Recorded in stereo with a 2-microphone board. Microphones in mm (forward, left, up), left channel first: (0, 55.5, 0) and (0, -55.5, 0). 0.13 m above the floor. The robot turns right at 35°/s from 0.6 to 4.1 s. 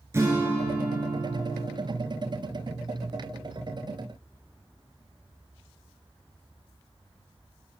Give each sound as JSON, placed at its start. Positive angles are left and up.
{"t": 0.1, "sound": "a guitar", "azimuth_deg": -145, "distance_m": 1.1}